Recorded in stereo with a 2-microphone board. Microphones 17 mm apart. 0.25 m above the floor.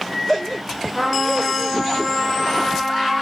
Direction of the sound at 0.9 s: 5° left (ahead or behind).